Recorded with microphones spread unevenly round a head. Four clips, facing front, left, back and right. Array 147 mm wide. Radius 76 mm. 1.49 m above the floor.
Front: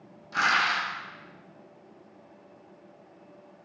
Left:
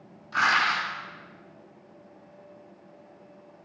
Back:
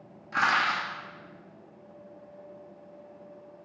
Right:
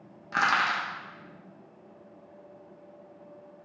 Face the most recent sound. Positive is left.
turn(degrees=-95)